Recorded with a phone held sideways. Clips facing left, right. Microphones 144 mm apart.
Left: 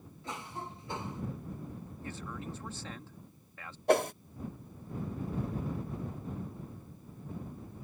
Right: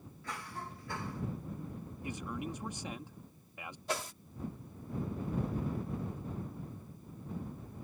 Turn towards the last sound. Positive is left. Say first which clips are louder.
# left 13 dB
turn(degrees=60)  # may be behind; listen again after turning